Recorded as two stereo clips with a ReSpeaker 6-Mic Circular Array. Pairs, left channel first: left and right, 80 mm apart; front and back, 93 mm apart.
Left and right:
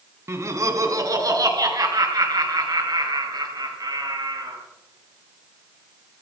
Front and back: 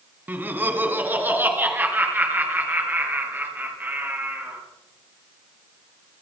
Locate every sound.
0.3 s laughter: 120° right, 1.9 m; by 4.6 s 110° right, 5.5 m